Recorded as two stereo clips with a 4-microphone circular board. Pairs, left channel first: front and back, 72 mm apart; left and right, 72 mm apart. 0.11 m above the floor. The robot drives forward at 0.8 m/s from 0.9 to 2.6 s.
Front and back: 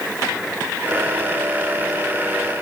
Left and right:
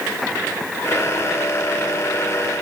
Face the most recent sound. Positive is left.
No sound to turn to.